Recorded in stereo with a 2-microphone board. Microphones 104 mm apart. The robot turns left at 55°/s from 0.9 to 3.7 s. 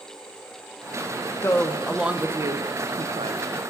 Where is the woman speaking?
25° left, 0.7 m; by 3.6 s 95° right, 0.7 m.